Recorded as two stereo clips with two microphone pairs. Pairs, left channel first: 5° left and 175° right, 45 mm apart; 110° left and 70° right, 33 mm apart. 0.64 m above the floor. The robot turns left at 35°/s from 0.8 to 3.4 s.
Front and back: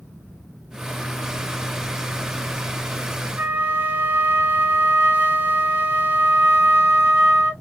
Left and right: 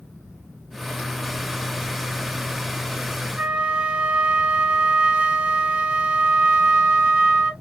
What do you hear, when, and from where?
3.4 s a flute: 130° right, 1.2 m